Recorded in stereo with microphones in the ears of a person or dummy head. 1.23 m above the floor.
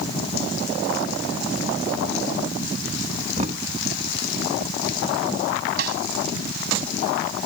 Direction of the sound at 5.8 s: 60° right (ahead or behind).